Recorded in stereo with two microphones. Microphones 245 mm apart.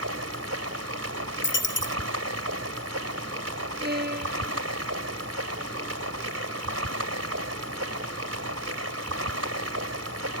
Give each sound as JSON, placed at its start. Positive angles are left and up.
{"t": 0.0, "sound": "running water", "side_deg": -80}
{"t": 1.4, "sound": "a dropped coin", "side_deg": 50}
{"t": 3.8, "sound": "a violin", "side_deg": -40}